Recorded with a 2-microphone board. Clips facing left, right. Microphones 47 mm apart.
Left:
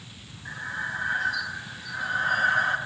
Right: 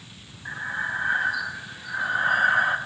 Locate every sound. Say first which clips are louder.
0.5 s breathing: right 3 dB; 20° right (ahead or behind), 0.6 m